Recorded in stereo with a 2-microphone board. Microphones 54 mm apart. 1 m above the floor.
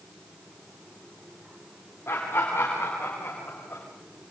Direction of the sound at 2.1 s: 60° left (ahead or behind).